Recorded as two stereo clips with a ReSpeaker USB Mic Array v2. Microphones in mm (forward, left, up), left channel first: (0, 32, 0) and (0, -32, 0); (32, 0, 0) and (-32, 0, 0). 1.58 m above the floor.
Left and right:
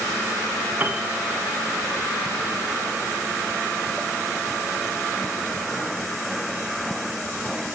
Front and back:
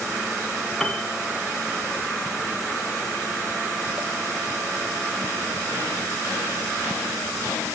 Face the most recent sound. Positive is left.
turn(degrees=-75)